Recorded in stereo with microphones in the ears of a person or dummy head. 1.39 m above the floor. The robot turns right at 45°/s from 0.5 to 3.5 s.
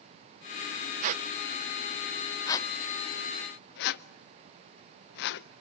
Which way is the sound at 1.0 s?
45° right (ahead or behind).